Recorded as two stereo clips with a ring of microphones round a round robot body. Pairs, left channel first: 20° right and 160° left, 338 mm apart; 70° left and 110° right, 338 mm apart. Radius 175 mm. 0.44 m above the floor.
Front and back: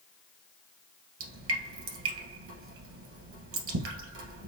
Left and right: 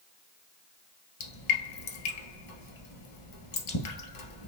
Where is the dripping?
105° left, 1.8 m.